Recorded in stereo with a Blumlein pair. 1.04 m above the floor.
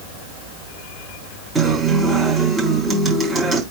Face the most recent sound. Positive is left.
turn(degrees=-20)